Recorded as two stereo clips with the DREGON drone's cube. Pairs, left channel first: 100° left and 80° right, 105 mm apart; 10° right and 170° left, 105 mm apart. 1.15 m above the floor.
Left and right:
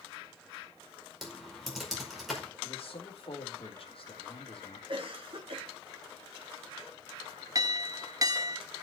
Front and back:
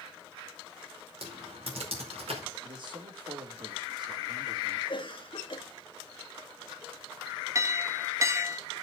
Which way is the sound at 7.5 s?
130° right.